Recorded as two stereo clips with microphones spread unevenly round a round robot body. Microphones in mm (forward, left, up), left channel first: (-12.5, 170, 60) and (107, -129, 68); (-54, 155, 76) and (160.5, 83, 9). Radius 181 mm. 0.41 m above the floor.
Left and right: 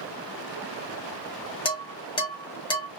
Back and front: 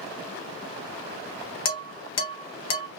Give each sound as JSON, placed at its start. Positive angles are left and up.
{"t": 1.6, "sound": "dishes clattering", "azimuth_deg": -175, "distance_m": 1.1}